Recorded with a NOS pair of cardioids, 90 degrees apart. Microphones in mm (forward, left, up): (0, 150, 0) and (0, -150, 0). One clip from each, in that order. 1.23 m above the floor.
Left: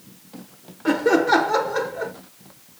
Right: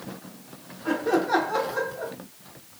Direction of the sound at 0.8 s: 60° left.